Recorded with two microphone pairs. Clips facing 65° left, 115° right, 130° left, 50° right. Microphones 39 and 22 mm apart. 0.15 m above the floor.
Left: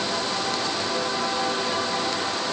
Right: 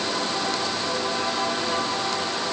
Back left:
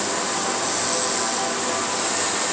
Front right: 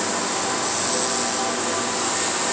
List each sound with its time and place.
Only background noise.